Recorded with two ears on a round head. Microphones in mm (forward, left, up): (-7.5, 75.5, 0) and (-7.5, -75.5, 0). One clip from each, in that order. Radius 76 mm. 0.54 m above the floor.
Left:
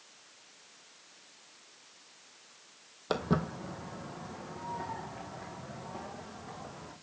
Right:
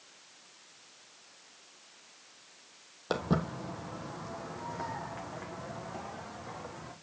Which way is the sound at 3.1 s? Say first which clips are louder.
Even; 5° left (ahead or behind).